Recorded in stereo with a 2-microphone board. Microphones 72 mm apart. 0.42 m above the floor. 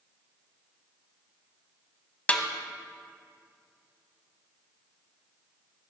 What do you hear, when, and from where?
2.3 s a snare drum: 20° left (ahead or behind), 0.8 m